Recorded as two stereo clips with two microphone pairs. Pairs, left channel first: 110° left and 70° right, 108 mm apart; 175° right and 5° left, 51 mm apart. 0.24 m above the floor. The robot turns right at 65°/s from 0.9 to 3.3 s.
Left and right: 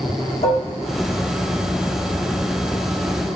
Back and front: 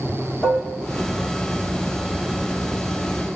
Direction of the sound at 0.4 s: 115° left.